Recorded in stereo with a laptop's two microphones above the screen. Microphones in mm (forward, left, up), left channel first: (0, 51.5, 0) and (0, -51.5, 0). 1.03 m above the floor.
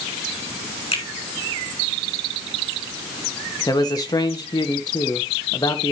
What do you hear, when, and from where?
0.9 s a finger snap: 70° left (ahead or behind), 3 m
3.7 s a man speaking: 40° left (ahead or behind), 1.3 m